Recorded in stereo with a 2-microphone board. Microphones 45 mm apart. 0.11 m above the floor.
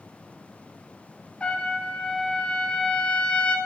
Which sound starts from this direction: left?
A trumpet, at 1.4 s.